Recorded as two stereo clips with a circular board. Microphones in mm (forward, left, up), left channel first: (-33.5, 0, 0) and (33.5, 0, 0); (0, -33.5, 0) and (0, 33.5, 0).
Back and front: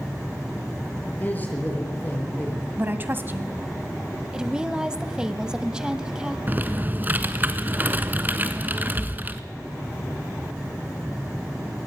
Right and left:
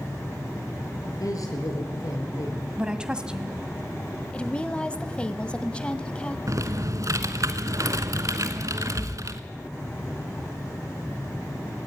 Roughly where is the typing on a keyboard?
Ahead left.